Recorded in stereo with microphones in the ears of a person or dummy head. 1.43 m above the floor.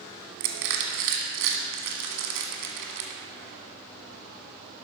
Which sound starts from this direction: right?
Crushing, at 0.4 s.